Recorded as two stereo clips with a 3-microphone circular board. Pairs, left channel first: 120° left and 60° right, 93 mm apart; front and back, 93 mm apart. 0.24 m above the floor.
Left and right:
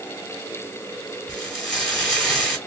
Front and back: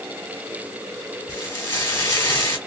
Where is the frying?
40° left, 1.7 m.